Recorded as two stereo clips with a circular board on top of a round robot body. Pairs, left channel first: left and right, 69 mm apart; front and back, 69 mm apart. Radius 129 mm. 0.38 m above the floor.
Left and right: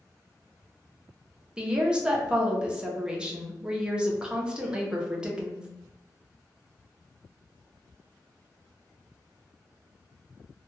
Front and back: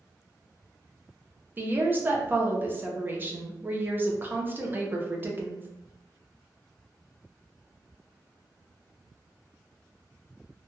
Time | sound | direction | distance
1.6 | a woman speaking | 155° right | 0.8 m